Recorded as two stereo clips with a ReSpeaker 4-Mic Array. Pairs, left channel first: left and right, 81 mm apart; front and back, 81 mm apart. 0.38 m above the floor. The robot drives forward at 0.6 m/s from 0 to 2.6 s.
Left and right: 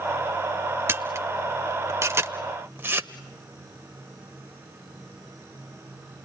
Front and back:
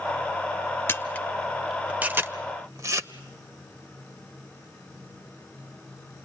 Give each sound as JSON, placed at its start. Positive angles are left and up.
{"t": 0.9, "sound": "a camera shutter", "azimuth_deg": -45, "distance_m": 0.8}